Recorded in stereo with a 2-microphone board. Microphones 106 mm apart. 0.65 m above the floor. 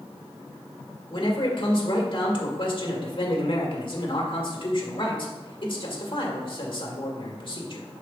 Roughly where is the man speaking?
Left.